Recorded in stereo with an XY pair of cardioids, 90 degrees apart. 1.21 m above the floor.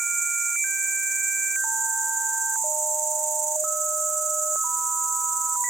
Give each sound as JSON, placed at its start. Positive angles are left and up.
{"t": 0.0, "sound": "an insect", "azimuth_deg": -60, "distance_m": 0.8}